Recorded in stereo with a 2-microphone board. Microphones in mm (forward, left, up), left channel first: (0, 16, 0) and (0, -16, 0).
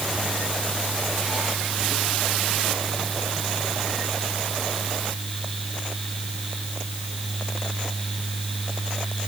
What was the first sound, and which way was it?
Only background noise.